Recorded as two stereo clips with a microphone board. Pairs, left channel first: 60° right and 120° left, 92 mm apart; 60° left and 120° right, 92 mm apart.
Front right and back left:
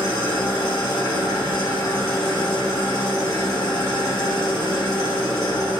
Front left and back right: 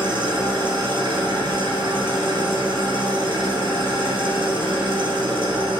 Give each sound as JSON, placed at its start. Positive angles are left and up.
{"t": 0.0, "sound": "an engine running", "azimuth_deg": -95, "distance_m": 0.9}